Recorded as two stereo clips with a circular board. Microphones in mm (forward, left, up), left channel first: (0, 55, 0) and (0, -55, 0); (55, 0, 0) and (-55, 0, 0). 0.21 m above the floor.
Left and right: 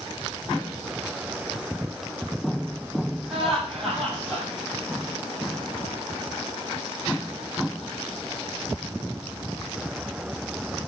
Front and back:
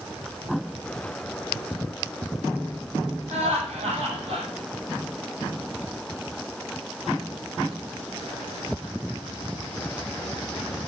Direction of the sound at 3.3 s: 175° left.